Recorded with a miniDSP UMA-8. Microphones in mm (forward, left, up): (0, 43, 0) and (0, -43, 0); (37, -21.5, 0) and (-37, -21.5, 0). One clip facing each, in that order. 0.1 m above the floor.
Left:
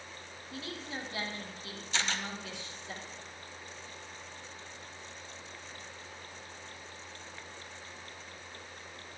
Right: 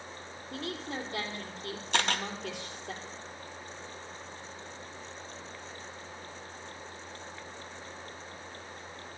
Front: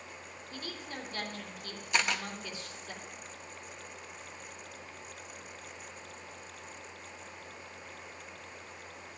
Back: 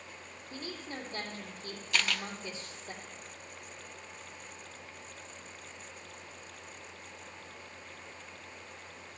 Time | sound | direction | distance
0.5 | a woman speaking | 120° right | 3 m
1.9 | a camera shutter | 70° right | 0.7 m